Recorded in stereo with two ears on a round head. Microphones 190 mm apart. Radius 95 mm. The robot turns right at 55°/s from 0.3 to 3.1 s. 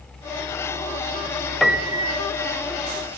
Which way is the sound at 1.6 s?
Straight behind.